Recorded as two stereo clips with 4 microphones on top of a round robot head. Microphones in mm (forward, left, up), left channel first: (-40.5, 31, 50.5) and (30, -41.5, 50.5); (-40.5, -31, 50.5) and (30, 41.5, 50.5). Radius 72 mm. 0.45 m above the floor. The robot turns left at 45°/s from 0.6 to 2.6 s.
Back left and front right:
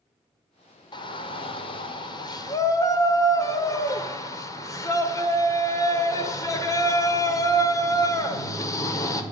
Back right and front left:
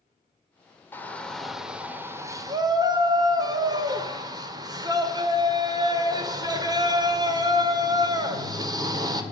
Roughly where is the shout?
Behind.